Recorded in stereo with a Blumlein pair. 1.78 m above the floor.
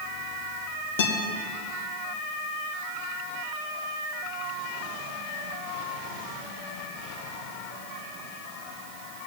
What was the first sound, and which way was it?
A guitar, 55° left.